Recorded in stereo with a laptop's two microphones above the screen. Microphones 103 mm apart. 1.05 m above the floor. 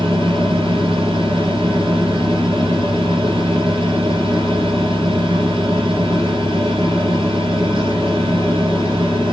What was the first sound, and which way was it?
A fan, 75° right (ahead or behind).